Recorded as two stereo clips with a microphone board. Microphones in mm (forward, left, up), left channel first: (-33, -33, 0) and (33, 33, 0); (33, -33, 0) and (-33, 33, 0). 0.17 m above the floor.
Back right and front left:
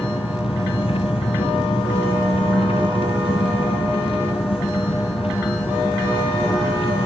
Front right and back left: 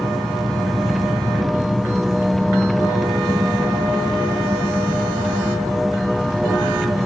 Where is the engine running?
135° right.